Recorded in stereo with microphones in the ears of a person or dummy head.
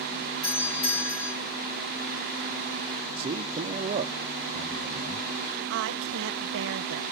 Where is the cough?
No cough in this recording.